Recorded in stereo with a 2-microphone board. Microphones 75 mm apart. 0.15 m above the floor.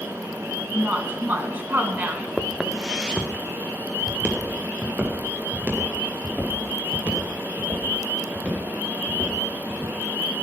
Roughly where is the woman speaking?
Right.